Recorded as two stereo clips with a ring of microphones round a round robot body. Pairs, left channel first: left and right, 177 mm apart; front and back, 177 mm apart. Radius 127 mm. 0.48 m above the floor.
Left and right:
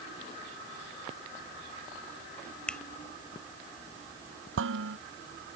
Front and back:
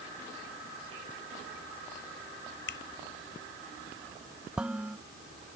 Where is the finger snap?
5° left.